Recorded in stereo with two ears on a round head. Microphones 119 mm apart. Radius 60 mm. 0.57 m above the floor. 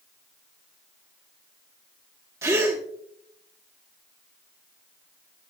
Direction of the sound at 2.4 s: 20° right (ahead or behind).